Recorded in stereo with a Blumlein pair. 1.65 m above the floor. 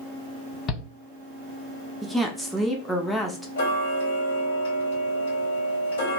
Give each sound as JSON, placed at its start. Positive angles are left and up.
{"t": 0.7, "sound": "a shout", "azimuth_deg": 25, "distance_m": 1.2}
{"t": 2.0, "sound": "a woman speaking", "azimuth_deg": 0, "distance_m": 0.8}
{"t": 3.6, "sound": "ticking", "azimuth_deg": 55, "distance_m": 1.0}